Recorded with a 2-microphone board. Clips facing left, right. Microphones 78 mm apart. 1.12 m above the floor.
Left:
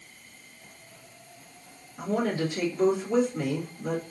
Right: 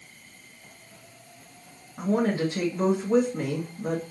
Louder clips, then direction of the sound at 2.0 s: Right 3 dB; 45° right (ahead or behind).